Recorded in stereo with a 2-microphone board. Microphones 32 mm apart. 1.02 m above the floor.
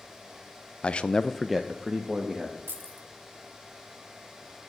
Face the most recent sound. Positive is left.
turn(degrees=-80)